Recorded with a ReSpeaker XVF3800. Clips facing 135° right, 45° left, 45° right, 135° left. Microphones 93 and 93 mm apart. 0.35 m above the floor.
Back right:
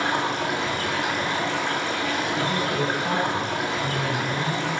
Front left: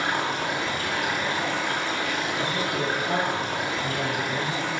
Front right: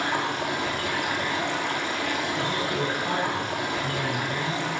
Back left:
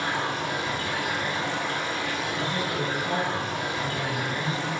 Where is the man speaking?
100° right, 4.5 m.